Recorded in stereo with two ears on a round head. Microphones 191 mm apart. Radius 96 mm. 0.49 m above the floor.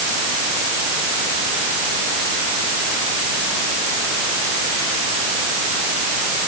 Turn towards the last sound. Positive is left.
No sound to turn to.